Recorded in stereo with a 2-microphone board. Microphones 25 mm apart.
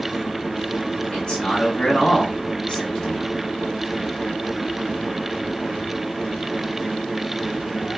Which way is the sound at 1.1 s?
30° left (ahead or behind).